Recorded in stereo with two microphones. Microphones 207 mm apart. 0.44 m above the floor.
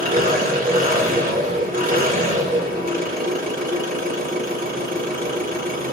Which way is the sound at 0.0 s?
45° right (ahead or behind).